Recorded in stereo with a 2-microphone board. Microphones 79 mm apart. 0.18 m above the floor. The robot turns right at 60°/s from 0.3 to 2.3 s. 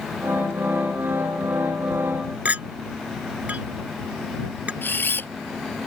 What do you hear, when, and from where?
2.5 s a clink: 20° right (ahead or behind)
4.8 s a camera shutter: 25° left (ahead or behind)